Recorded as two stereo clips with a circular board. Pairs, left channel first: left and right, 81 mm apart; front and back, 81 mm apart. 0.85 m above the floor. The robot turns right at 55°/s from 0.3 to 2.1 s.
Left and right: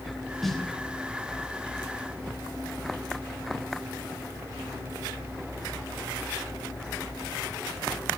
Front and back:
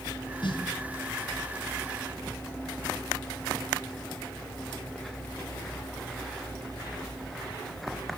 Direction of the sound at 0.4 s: Straight ahead.